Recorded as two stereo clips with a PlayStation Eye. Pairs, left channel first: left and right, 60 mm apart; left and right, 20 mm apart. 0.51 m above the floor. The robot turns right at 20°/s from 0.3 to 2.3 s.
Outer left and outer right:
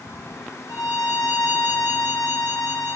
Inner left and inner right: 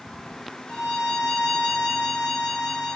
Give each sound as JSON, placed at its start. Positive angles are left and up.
{"t": 0.7, "sound": "a violin", "azimuth_deg": 85, "distance_m": 1.6}